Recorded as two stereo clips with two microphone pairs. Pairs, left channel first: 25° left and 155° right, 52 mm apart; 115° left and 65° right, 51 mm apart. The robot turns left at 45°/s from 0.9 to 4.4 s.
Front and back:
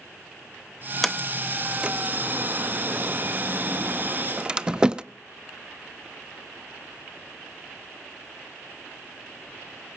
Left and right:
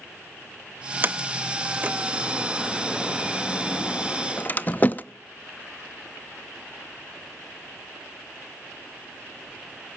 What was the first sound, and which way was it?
A sliding door, 65° right.